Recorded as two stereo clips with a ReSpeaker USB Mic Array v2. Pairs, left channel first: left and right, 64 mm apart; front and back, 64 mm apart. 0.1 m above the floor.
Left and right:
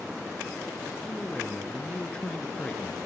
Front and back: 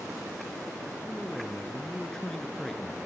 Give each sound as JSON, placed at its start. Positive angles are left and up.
{"t": 1.1, "sound": "a man speaking", "azimuth_deg": 70, "distance_m": 1.1}